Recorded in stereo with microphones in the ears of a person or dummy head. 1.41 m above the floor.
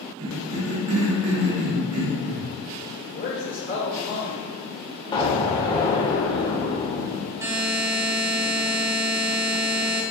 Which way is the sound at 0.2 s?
65° right (ahead or behind).